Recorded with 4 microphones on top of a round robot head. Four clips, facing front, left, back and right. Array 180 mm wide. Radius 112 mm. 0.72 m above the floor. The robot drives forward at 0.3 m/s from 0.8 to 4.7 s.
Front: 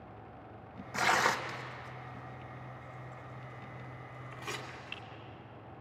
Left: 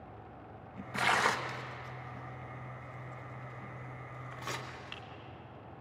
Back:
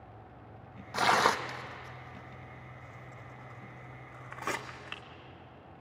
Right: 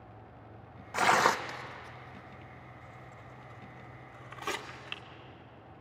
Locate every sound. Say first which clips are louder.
0.9 s tearing paper: right 5 dB, back 3 dB; 125° right, 1.2 m; by 5.0 s 160° right, 1.9 m